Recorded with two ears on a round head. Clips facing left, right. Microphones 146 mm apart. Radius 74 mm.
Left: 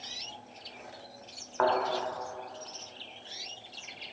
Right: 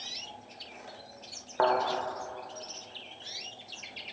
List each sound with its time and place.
1.6 s a thud: 25° right (ahead or behind), 1.5 m